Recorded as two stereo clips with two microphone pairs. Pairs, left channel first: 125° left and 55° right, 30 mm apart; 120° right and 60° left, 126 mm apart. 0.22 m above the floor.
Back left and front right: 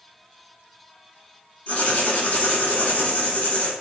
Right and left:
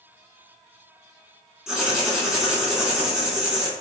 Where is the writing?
150° left, 0.9 m.